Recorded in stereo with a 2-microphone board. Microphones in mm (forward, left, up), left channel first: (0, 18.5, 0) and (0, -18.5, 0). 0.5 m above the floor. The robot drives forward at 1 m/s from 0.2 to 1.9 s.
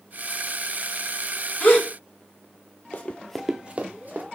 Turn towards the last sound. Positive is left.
turn(degrees=-50)  # may be behind; listen again after turning